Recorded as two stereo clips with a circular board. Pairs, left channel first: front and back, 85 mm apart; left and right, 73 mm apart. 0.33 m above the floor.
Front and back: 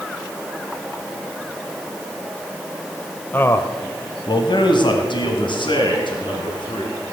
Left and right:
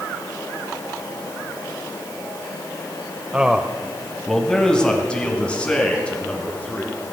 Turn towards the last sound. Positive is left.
turn(degrees=15)